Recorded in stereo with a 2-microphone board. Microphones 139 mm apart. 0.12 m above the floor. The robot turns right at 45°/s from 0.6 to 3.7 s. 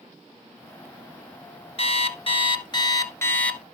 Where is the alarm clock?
90° left, 1.1 m; by 3.6 s 170° left, 1.1 m.